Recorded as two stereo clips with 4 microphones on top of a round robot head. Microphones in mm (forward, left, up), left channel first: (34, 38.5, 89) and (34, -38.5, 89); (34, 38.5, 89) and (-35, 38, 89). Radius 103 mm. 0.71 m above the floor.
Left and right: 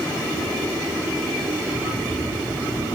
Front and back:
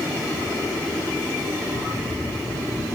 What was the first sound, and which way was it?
Running footsteps, 35° right.